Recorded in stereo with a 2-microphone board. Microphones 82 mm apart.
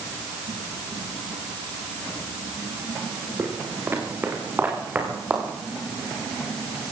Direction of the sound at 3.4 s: 30° right (ahead or behind).